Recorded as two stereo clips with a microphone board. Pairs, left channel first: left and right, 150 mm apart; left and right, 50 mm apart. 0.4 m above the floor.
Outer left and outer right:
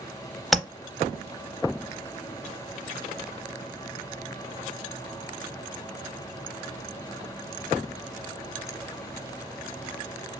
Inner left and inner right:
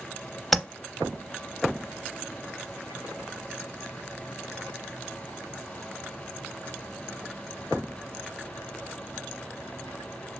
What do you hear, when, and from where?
0.5 s tapping: centre (ahead or behind), 0.6 m